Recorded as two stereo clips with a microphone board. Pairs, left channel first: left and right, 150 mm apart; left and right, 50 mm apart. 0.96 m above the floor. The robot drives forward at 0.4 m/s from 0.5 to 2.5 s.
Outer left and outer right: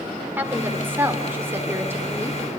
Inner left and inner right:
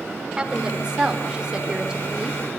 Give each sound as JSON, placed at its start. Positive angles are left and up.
{"t": 0.4, "sound": "a woman speaking", "side_deg": -15, "distance_m": 3.5}